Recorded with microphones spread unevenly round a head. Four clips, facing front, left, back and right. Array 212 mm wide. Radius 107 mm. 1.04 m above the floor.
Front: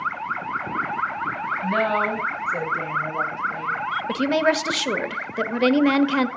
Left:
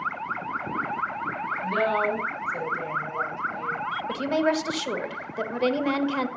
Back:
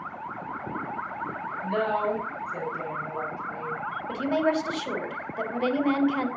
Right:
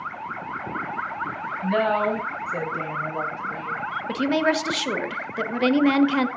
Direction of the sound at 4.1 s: 20° right.